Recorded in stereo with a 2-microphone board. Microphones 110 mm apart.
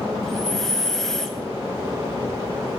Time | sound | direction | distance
0.2 | breathing | 5° left (ahead or behind) | 0.5 m